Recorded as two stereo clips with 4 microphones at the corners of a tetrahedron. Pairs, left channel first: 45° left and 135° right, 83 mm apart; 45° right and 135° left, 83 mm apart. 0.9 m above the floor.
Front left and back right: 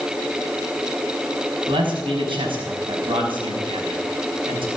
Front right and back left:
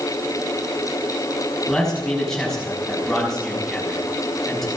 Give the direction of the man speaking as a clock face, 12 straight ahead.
4 o'clock.